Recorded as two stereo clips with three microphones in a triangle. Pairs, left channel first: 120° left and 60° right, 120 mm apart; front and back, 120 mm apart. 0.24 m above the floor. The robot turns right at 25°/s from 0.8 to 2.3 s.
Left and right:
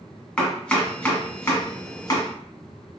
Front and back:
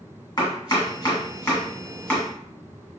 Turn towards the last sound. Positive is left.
turn(degrees=80)